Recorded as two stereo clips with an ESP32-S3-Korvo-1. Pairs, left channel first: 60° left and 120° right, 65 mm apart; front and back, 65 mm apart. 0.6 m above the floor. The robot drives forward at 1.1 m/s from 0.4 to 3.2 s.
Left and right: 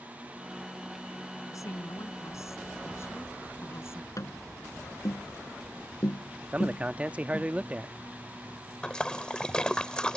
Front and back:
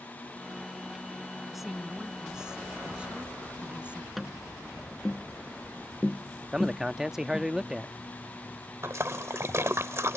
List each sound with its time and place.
1.5 s a woman speaking: 90° left; by 4.1 s 110° left
4.2 s tapping: 90° left
6.5 s a man speaking: 115° right
8.8 s a splash: 135° left